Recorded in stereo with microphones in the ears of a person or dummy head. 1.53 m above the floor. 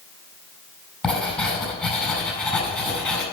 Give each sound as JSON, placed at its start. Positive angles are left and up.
{"t": 1.0, "sound": "writing", "side_deg": 10, "distance_m": 4.5}